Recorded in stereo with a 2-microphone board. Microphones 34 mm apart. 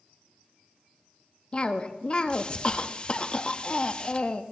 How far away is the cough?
About 0.8 m.